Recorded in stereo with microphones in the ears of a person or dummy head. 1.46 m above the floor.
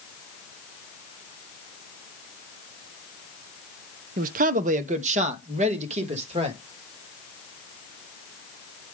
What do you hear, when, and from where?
4.2 s a man speaking: 45° right (ahead or behind), 0.9 m; by 6.6 s 35° right (ahead or behind), 2.5 m